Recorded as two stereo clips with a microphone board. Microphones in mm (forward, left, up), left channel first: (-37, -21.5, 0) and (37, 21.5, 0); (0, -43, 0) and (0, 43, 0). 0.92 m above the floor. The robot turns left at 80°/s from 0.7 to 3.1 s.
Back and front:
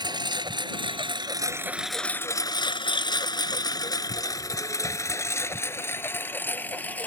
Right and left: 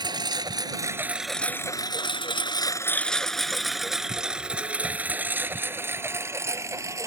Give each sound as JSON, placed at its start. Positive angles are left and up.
{"t": 0.0, "sound": "a lawn mower", "azimuth_deg": 60}